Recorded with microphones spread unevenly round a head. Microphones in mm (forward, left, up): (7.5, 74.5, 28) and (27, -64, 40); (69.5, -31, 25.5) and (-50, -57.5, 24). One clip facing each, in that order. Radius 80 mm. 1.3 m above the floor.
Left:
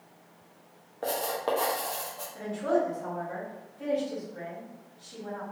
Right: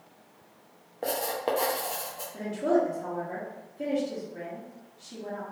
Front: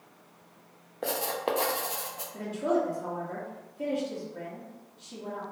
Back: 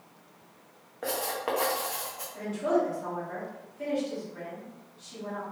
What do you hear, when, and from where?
1.0 s writing: 20° right, 0.6 m
2.3 s a woman speaking: 45° right, 1.7 m